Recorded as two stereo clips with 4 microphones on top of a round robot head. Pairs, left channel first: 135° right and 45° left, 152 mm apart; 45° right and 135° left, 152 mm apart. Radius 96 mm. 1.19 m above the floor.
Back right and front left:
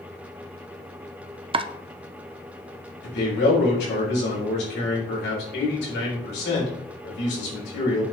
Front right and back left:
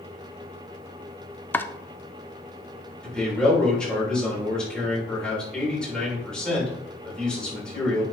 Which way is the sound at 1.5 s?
25° left.